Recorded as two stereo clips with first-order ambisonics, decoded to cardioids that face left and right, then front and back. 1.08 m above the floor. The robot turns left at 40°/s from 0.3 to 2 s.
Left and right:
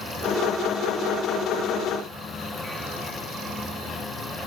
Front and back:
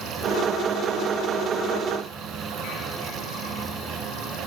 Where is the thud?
I don't hear a thud.